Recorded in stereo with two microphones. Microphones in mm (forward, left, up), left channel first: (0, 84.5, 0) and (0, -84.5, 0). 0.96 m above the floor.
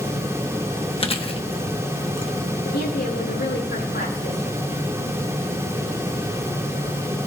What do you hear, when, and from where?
1.0 s chewing: 35° left (ahead or behind), 0.9 m
2.6 s a woman speaking: 75° left (ahead or behind), 8.5 m